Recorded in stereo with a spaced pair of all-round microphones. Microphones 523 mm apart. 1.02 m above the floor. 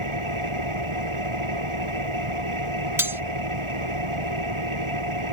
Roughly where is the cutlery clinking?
Centre.